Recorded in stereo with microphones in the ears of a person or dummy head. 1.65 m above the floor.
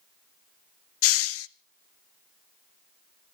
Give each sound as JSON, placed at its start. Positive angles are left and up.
{"t": 1.0, "sound": "a hiss", "side_deg": 75, "distance_m": 0.6}